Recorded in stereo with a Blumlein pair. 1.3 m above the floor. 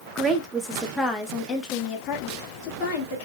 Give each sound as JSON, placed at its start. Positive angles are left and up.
{"t": 0.1, "sound": "a woman speaking", "azimuth_deg": -15, "distance_m": 1.4}